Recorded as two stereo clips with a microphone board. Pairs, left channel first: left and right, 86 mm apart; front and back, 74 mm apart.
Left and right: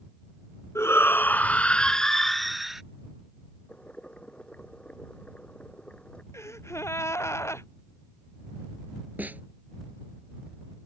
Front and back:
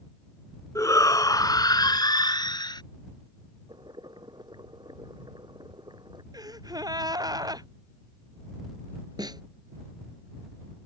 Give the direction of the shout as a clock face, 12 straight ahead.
11 o'clock.